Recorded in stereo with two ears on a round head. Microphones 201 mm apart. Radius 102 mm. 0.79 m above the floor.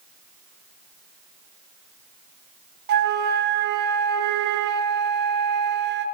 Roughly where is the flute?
Right.